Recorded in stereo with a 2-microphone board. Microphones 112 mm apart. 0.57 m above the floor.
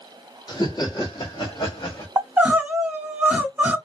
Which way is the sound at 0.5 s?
40° left (ahead or behind).